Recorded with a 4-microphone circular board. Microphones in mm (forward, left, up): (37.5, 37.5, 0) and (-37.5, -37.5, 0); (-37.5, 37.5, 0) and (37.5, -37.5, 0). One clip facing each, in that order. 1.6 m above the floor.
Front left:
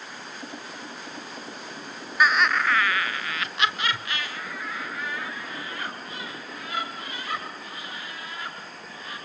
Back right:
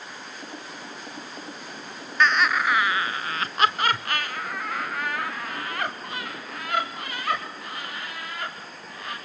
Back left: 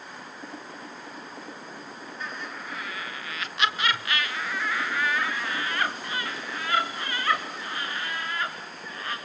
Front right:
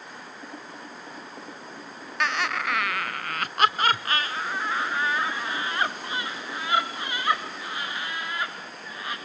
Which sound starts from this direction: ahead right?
Laughter, at 2.2 s.